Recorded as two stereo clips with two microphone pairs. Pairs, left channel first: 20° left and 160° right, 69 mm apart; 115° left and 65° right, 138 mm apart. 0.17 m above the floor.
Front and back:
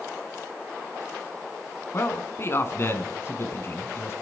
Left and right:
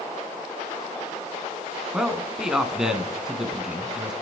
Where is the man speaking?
15° left, 1.5 m.